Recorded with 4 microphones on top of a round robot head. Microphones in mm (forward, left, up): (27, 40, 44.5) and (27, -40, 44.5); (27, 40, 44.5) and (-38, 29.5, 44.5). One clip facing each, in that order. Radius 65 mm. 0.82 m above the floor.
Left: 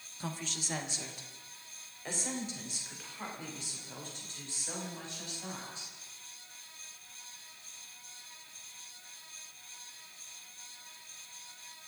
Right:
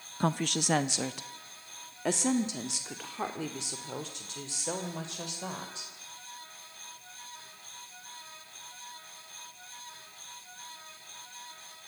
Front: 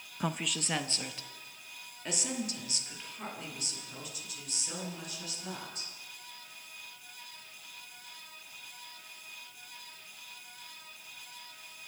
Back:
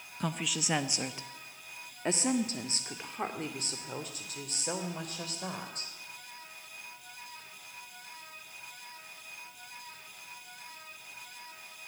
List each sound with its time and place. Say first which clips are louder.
0.2 s a woman speaking: right 11 dB, even; 70° right, 0.6 m; by 5.9 s 115° right, 3.5 m